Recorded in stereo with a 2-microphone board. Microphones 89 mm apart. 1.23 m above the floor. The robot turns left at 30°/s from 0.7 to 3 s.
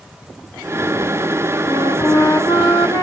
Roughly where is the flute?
Behind left.